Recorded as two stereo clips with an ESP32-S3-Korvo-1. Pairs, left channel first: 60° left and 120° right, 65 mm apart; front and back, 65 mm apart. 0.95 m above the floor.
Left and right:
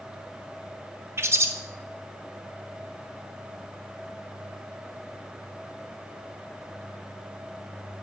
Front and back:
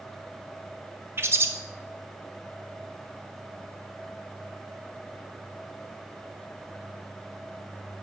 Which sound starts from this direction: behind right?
A bird, at 1.2 s.